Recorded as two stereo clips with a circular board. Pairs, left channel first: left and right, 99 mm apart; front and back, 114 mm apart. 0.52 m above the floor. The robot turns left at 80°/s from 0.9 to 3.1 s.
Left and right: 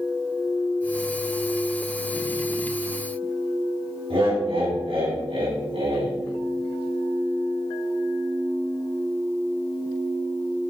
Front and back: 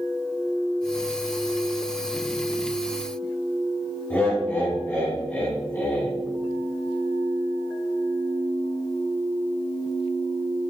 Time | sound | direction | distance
4.1 | laughter | 75° right | 3.5 m